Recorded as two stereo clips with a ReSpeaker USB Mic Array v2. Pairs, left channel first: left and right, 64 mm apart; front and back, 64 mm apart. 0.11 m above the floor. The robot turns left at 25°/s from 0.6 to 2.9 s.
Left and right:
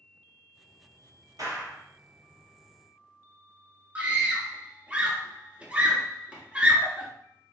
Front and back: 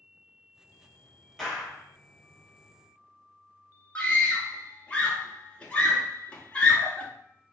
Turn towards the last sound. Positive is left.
turn(degrees=-50)